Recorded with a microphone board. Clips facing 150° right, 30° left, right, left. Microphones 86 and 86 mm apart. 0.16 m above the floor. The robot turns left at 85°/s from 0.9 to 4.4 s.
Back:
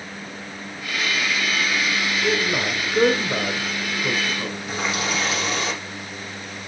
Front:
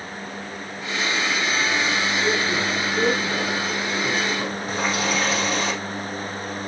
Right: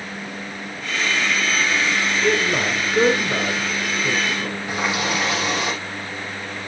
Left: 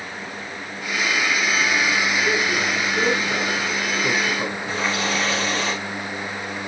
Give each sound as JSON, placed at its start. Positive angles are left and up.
{"t": 2.2, "sound": "a man speaking", "azimuth_deg": -80, "distance_m": 1.9}
{"t": 4.7, "sound": "a running tap", "azimuth_deg": -15, "distance_m": 5.0}